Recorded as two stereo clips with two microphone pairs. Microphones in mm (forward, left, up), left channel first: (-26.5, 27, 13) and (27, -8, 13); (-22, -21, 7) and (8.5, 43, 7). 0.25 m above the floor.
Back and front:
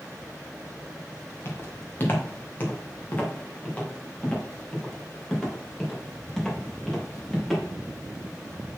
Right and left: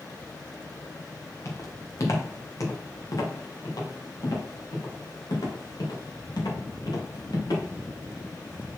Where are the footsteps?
160° right, 4 m; by 7.6 s 130° right, 6 m.